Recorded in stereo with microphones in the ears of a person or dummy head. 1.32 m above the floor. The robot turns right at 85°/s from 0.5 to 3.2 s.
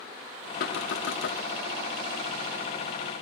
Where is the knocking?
55° left, 1.9 m; by 1.4 s 125° left, 1.9 m.